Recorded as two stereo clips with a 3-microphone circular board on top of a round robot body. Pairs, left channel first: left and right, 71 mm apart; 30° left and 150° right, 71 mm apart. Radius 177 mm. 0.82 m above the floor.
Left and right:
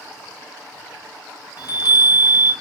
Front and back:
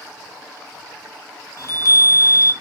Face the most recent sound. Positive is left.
turn(degrees=70)